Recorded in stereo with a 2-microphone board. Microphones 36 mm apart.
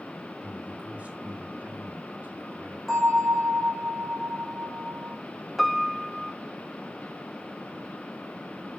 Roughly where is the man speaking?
Right.